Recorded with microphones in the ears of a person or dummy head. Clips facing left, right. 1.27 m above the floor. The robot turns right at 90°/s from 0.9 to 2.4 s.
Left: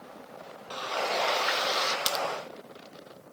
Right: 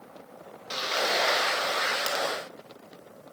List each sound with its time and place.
0.7 s frying: 35° right, 0.6 m; by 2.0 s 60° left, 0.6 m
2.1 s a crack: 20° left (ahead or behind), 0.6 m; by 2.2 s 35° left (ahead or behind), 0.6 m